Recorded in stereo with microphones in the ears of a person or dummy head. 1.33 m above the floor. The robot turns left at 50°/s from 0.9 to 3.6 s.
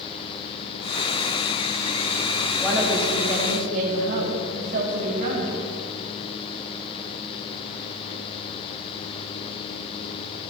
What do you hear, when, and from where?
2.6 s a woman speaking: 5° left, 7.5 m; by 5.6 s 45° right, 7.5 m